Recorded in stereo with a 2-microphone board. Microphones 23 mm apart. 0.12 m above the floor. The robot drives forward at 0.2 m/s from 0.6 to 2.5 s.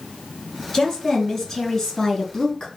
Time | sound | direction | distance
0.7 | a woman speaking | 20° left (ahead or behind) | 1.2 m